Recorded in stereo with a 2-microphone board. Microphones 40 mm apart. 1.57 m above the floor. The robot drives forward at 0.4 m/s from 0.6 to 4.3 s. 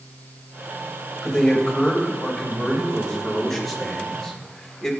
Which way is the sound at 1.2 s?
5° left (ahead or behind).